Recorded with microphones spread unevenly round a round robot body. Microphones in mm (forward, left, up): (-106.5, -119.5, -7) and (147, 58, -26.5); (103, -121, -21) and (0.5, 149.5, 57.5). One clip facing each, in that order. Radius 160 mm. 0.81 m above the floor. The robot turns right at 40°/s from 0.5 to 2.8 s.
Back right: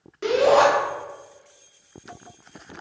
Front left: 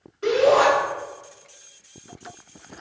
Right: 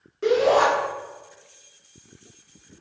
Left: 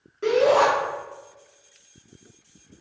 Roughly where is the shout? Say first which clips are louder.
Even, even; behind right.